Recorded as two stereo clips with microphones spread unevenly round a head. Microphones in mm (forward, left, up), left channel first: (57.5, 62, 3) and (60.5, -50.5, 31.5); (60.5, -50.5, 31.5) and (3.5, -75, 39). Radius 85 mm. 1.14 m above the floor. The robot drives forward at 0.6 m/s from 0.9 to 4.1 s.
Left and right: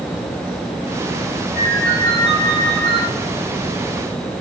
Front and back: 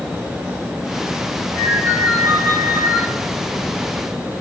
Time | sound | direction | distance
1.6 | a ringtone | 175° left | 2.5 m